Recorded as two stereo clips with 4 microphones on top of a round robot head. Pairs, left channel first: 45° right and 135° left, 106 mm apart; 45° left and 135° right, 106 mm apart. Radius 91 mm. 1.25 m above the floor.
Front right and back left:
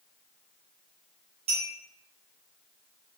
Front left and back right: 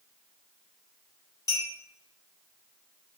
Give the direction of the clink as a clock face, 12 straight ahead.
9 o'clock.